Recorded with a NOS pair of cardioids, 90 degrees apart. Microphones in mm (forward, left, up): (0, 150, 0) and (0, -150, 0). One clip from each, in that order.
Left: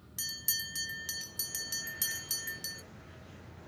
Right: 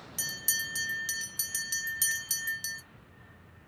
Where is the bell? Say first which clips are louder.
Right 4 dB; 15° right, 0.6 m.